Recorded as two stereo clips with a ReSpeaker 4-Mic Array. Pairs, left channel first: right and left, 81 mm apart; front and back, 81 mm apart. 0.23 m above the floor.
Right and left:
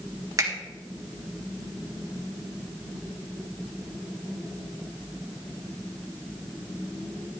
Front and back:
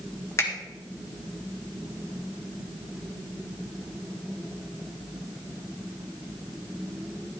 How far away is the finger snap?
About 2.5 m.